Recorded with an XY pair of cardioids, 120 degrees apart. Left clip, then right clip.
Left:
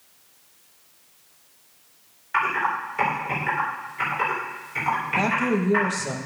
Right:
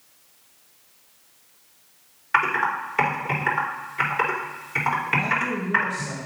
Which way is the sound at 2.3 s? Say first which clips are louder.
Right 2 dB; 45° right.